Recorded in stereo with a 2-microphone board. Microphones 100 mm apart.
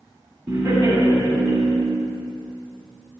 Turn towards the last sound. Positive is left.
turn(degrees=-45)  # may be behind; listen again after turning